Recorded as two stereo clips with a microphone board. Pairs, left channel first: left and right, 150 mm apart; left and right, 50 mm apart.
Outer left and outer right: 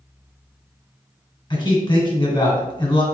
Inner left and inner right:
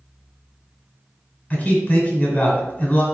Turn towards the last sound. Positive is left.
turn(degrees=30)  # may be behind; listen again after turning